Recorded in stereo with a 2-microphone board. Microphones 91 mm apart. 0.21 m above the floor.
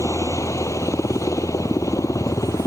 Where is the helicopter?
35° left (ahead or behind).